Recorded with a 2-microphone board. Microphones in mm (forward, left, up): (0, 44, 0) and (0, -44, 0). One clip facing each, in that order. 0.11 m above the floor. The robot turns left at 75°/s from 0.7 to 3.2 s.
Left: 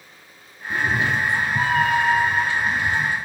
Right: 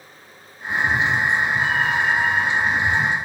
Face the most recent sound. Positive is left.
turn(degrees=-25)